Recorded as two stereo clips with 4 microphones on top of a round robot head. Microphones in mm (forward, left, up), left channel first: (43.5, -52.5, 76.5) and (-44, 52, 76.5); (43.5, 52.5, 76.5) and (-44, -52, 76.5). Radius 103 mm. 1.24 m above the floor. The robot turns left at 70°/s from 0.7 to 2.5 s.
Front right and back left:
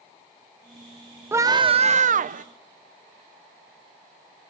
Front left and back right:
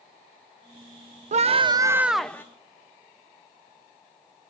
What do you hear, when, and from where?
1.3 s a scream: 160° right, 0.8 m; by 2.5 s 120° left, 0.8 m